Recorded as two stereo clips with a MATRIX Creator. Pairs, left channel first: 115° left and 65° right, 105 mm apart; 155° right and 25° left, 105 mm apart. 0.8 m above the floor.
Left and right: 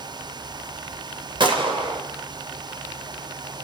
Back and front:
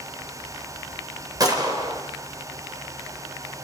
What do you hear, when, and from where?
1.4 s a gunshot: 30° right, 3 m